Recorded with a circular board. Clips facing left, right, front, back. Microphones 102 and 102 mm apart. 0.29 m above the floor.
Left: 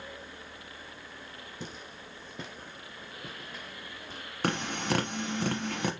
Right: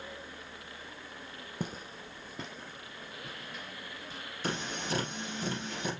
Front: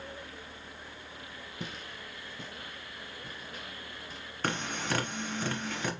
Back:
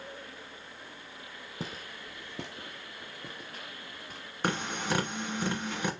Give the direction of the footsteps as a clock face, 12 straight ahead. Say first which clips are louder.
Right 5 dB, back 2 dB; 4 o'clock.